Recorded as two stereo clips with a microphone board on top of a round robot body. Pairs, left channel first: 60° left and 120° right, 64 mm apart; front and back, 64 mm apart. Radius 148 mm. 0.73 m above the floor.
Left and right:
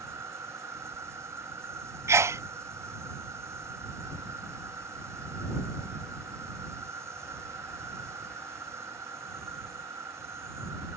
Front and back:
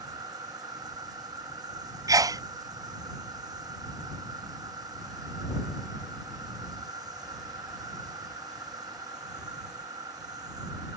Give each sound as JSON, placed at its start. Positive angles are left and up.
{"t": 0.0, "sound": "an insect", "azimuth_deg": -165}
{"t": 2.1, "sound": "a sneeze", "azimuth_deg": -160}